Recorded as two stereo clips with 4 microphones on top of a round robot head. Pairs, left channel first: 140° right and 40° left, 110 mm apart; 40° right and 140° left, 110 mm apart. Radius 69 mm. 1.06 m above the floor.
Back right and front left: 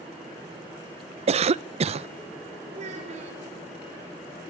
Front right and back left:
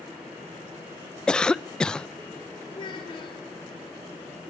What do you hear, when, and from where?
1.3 s a cough: 45° left, 0.7 m
2.7 s a child speaking: 10° left, 2 m